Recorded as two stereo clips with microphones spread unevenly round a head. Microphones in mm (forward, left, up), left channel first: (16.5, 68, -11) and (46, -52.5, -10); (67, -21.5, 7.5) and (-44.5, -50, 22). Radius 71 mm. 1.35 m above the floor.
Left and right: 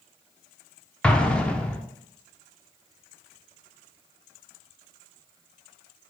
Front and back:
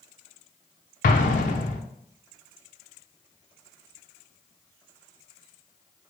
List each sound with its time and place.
1.0 s an explosion: 25° left, 0.6 m